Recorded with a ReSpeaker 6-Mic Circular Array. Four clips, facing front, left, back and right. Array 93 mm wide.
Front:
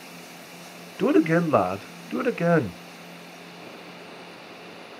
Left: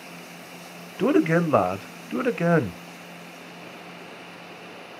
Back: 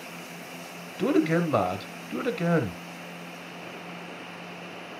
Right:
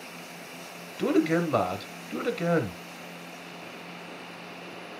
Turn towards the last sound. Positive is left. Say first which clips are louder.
# left 4 dB, front 4 dB
turn(degrees=50)